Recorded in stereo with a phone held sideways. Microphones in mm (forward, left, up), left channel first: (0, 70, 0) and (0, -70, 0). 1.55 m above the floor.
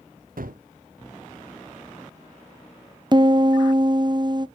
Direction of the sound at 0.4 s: 80° right.